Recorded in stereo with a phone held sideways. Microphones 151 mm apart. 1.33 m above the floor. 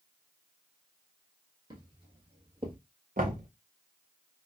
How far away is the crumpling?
I don't hear crumpling.